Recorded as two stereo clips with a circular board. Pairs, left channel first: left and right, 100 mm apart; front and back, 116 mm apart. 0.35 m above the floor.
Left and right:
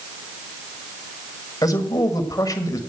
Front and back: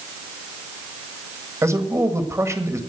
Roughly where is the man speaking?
Behind left.